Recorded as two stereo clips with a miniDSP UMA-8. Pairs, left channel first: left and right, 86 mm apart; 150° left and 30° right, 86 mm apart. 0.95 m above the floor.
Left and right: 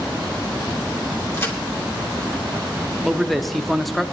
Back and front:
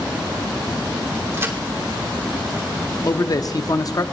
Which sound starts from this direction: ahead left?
A crack, at 1.3 s.